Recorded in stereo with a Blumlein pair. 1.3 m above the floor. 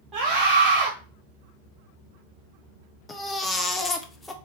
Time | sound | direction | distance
0.1 | a scream | 25° right | 1.3 m
3.1 | a baby crying | 15° left | 0.6 m